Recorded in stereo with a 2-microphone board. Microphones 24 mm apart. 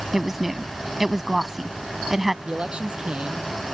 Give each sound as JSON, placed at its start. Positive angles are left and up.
{"t": 0.1, "sound": "a woman speaking", "side_deg": -10}
{"t": 2.5, "sound": "a man speaking", "side_deg": -40}